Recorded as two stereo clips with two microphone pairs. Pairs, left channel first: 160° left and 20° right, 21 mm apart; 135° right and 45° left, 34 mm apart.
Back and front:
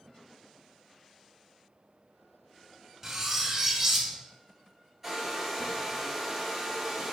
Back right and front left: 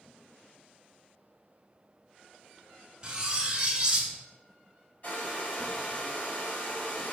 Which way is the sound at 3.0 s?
25° left.